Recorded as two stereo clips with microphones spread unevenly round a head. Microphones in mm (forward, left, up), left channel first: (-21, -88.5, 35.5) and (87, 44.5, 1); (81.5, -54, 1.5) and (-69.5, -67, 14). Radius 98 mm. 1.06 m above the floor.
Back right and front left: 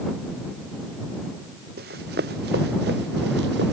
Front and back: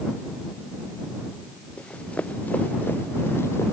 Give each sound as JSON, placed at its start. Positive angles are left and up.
{"t": 1.8, "sound": "running footsteps", "azimuth_deg": 90}